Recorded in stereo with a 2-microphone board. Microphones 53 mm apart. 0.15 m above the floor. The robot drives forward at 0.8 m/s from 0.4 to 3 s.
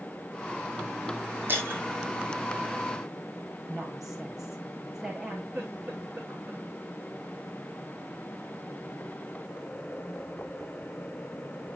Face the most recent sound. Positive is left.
turn(degrees=-30)  # may be behind; listen again after turning